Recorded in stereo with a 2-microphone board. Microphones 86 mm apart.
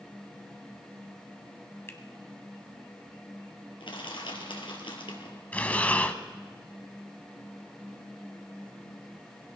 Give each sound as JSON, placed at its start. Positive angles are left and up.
{"t": 1.9, "sound": "a finger snap", "side_deg": 30, "distance_m": 1.2}
{"t": 3.8, "sound": "crushing", "side_deg": 75, "distance_m": 3.0}
{"t": 5.5, "sound": "breathing", "side_deg": 20, "distance_m": 0.8}